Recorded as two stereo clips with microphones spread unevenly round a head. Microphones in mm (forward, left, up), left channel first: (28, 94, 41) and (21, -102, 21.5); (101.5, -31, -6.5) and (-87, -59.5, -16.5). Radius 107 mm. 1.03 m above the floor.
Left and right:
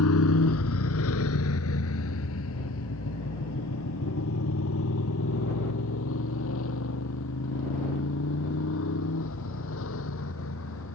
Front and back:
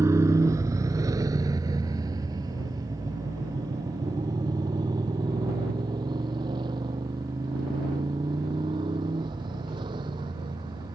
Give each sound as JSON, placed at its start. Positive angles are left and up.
{"t": 0.0, "sound": "a motorcycle", "azimuth_deg": 110}